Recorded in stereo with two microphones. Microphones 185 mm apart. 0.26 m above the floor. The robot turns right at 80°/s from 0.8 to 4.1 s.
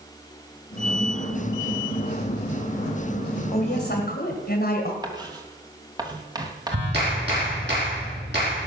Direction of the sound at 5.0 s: 20° right (ahead or behind).